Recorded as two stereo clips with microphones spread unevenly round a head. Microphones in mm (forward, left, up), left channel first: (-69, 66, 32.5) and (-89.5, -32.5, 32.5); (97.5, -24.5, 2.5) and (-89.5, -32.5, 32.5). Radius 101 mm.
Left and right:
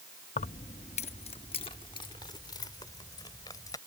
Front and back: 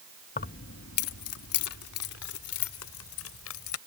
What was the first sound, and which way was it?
Keys jangling, 60° left.